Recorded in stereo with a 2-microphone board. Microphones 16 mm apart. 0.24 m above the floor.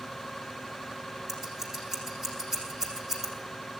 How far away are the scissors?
About 7.5 m.